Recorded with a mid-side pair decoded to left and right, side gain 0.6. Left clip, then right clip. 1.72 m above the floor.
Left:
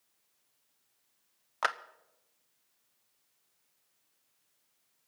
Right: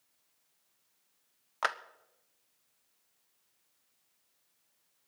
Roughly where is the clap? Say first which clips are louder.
Left 1 dB; ahead.